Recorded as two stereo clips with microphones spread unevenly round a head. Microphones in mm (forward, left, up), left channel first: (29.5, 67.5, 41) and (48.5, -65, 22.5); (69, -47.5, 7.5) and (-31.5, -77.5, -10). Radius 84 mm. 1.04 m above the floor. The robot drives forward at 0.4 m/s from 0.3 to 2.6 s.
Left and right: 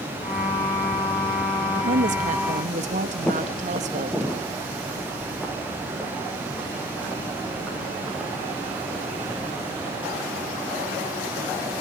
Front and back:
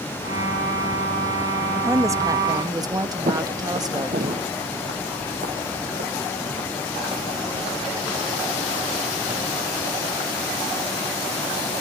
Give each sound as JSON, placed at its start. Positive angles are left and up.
{"t": 1.7, "sound": "a woman speaking", "azimuth_deg": -100, "distance_m": 1.4}
{"t": 3.3, "sound": "footsteps", "azimuth_deg": 175, "distance_m": 1.7}